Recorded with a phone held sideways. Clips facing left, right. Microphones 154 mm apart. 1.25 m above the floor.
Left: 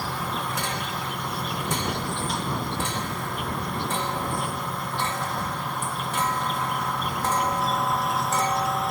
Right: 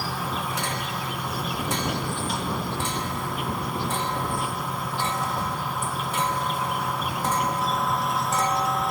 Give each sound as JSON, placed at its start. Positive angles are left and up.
{"t": 0.0, "sound": "an insect", "side_deg": -5}